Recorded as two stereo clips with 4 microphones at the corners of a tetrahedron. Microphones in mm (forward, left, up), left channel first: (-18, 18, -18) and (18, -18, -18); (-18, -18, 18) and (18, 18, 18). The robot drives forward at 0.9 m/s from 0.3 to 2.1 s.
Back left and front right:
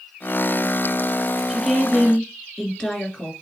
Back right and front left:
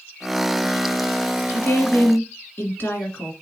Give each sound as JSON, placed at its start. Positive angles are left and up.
{"t": 1.5, "sound": "a woman speaking", "azimuth_deg": -135, "distance_m": 1.5}